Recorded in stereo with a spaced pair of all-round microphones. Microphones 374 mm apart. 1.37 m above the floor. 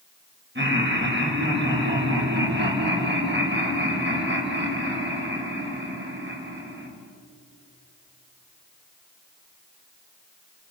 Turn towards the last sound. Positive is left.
turn(degrees=-30)  # may be behind; listen again after turning